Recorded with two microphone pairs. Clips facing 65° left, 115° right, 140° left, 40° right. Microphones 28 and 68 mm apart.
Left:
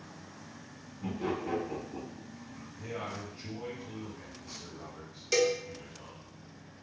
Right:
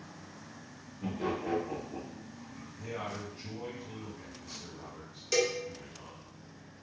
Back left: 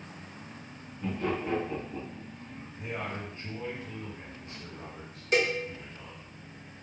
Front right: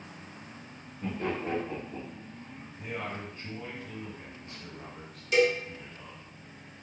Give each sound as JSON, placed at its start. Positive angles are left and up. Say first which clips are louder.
{"t": 1.0, "sound": "laughter", "louder": "even, back left 1 dB", "azimuth_deg": -85, "distance_m": 1.3}
{"t": 2.8, "sound": "a man speaking", "louder": "even, back left 1 dB", "azimuth_deg": 150, "distance_m": 1.0}
{"t": 5.3, "sound": "a cowbell", "louder": "left 2 dB, front right 3 dB", "azimuth_deg": 140, "distance_m": 0.5}